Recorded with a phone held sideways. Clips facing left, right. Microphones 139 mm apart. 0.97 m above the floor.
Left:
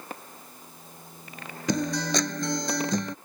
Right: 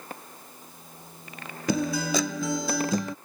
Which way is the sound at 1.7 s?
5° right (ahead or behind).